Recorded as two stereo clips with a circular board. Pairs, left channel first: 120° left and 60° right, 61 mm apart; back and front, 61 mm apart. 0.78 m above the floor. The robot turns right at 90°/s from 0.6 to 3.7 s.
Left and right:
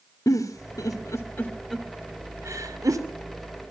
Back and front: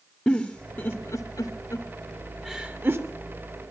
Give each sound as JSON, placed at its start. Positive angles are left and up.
{"t": 0.3, "sound": "a giggle", "azimuth_deg": 105, "distance_m": 2.0}